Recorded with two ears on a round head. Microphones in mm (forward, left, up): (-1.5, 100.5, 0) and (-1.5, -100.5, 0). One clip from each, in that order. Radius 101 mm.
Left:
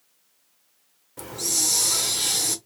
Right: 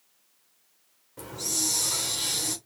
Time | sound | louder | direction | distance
1.2 | a hiss | left 4 dB | 20° left (ahead or behind) | 1.1 m